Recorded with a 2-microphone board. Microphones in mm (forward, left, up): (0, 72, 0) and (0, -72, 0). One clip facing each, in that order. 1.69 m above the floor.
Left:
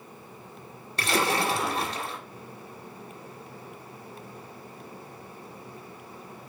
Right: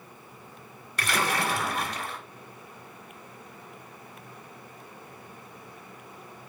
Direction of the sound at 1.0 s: 25° left (ahead or behind).